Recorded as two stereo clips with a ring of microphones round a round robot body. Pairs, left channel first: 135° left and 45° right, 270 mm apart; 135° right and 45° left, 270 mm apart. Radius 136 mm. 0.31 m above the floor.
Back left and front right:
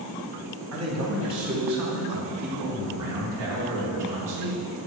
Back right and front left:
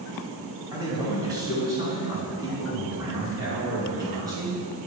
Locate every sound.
0.7 s a man speaking: 30° right, 2.0 m